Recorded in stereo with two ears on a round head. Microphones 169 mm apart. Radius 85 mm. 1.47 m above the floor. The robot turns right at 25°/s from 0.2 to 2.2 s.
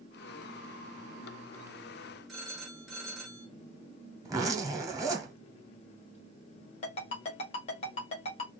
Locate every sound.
2.3 s a phone ringing: centre (ahead or behind), 1.4 m
4.2 s a zipper: 20° right (ahead or behind), 0.8 m
6.8 s a ringtone: 35° left (ahead or behind), 1.5 m